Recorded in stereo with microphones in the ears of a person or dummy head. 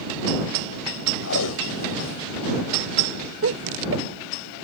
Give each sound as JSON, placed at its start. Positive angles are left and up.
{"t": 1.2, "sound": "tape being pulled", "side_deg": 85}
{"t": 3.4, "sound": "laughter", "side_deg": -80}